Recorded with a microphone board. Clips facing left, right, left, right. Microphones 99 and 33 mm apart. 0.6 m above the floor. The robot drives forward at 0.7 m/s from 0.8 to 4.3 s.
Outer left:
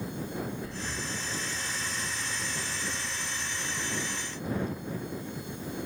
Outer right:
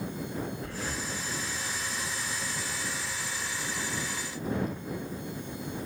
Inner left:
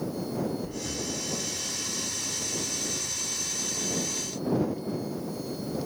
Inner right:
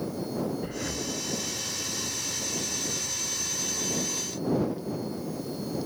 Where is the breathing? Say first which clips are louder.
Outer right 1 dB, inner right 1 dB; 65° right (ahead or behind), 1.1 m; by 1.1 s 70° right (ahead or behind), 1.1 m.